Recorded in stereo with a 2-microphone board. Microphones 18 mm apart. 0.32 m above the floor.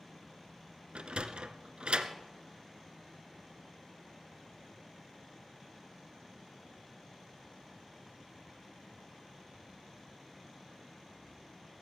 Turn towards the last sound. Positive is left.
turn(degrees=-85)